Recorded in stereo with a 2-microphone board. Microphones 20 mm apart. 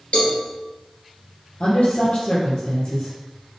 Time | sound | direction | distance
0.1 | a cowbell | 65° left (ahead or behind) | 4 m
1.6 | a woman speaking | 65° left (ahead or behind) | 3.5 m